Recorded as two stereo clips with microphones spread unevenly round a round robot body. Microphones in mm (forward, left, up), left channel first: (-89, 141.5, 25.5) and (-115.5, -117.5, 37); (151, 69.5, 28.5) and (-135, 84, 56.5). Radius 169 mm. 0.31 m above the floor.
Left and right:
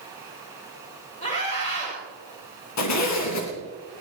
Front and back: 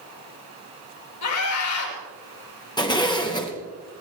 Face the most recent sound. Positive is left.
turn(degrees=70)